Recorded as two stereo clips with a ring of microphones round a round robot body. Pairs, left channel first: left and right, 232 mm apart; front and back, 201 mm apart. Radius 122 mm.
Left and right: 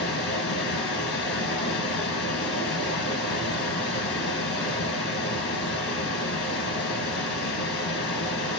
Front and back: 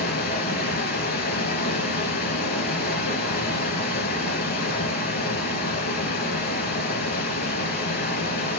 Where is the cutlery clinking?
I don't hear cutlery clinking.